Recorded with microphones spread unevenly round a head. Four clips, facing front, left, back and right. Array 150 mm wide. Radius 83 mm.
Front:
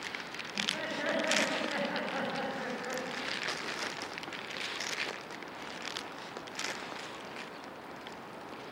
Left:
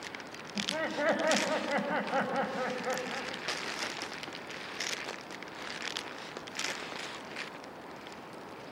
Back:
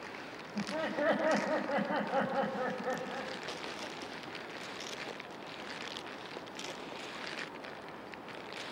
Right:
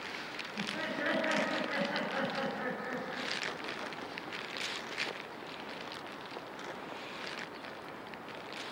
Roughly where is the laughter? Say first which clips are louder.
Left 5 dB, back 4 dB; behind left.